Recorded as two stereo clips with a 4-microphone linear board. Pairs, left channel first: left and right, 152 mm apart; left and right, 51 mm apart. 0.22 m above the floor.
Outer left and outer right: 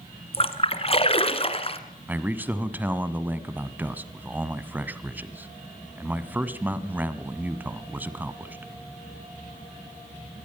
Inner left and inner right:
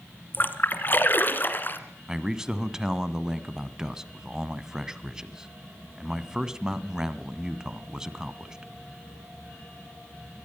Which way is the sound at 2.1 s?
10° right (ahead or behind).